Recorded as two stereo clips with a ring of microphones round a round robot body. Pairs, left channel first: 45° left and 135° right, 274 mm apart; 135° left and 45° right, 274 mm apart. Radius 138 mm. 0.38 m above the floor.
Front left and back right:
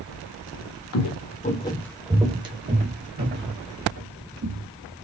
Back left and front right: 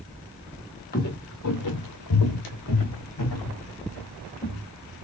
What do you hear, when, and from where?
0.9 s footsteps: 75° left, 0.7 m; by 4.7 s straight behind, 1.9 m